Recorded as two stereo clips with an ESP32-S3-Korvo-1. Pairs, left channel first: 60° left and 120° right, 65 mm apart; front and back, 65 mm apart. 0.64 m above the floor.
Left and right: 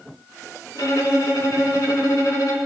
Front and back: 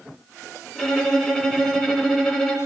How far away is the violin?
About 5 m.